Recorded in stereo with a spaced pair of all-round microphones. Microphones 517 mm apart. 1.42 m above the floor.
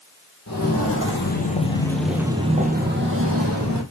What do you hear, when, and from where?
0.5 s footsteps: 30° left (ahead or behind), 1.9 m; by 3.8 s 30° right (ahead or behind), 2 m